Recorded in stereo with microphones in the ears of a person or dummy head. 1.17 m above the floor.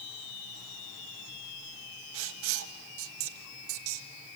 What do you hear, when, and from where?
2.1 s writing: 70° right (ahead or behind), 1.6 m